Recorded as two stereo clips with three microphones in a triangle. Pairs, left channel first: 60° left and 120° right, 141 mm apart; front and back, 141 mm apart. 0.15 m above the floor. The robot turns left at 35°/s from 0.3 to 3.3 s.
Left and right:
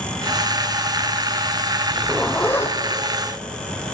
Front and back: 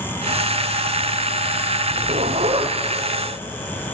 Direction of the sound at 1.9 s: 155° left.